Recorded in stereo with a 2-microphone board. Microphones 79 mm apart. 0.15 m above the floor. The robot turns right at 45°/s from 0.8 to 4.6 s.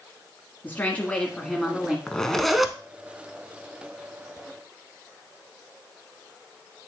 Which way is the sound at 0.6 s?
135° left.